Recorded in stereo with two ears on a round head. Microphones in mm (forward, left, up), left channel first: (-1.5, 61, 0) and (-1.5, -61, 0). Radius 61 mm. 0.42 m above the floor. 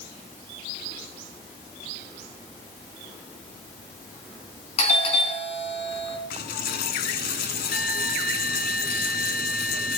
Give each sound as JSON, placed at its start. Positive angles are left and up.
{"t": 4.8, "sound": "a doorbell", "side_deg": 45, "distance_m": 4.5}
{"t": 6.3, "sound": "a dropped coin", "side_deg": 80, "distance_m": 2.0}